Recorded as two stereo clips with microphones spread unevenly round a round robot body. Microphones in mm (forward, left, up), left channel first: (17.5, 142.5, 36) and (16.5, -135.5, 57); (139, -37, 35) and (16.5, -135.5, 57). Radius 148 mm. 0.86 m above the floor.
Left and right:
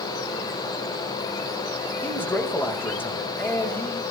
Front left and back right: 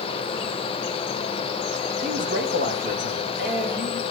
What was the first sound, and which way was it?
A man speaking, 170° left.